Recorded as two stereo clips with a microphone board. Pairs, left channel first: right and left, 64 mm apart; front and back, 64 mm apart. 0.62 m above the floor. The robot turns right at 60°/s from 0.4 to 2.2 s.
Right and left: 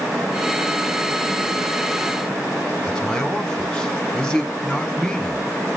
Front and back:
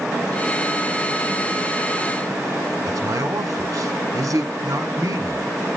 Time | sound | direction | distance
2.9 | a man speaking | 170° right | 1.3 m